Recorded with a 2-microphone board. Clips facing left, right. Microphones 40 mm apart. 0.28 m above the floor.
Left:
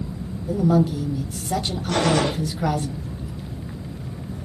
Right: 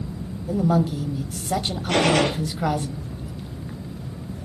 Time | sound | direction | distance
0.5 | a woman speaking | 15° right (ahead or behind) | 1.0 m
1.9 | a gunshot | 70° right (ahead or behind) | 2.5 m